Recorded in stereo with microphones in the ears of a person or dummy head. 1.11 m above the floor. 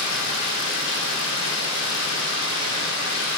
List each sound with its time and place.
0.0 s running water: 75° left (ahead or behind), 3 m